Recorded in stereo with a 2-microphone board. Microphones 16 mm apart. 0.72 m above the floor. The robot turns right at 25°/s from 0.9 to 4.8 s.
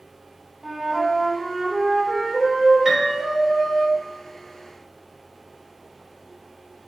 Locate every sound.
0.6 s a flute: 115° right, 1.2 m; by 3.9 s 45° right, 1.2 m
2.9 s a piano: 25° right (ahead or behind), 1.0 m; by 3.1 s 30° right (ahead or behind), 1.0 m